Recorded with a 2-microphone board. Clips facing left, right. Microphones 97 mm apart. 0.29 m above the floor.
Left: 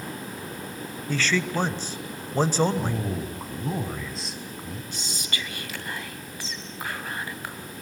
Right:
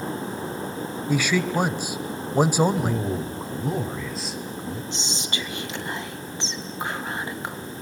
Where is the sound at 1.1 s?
10° right (ahead or behind), 1.0 m.